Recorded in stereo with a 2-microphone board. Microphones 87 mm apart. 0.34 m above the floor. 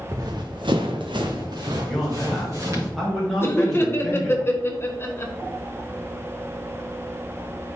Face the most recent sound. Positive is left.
turn(degrees=30)  # may be behind; listen again after turning